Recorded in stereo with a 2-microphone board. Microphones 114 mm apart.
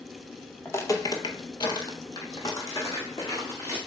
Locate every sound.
0.7 s footsteps: 20° left (ahead or behind), 0.7 m